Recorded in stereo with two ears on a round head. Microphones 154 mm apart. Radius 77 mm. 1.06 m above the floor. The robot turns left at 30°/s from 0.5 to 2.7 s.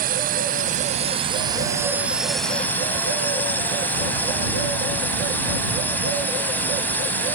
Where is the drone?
125° right; by 7.4 s 170° left.